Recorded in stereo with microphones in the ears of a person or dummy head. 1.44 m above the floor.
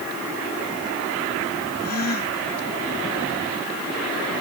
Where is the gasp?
50° left (ahead or behind).